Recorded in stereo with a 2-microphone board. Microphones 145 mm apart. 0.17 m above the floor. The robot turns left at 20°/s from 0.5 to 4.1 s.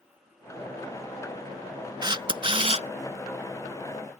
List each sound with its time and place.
2.0 s a camera shutter: 30° right (ahead or behind); by 2.9 s 45° right (ahead or behind)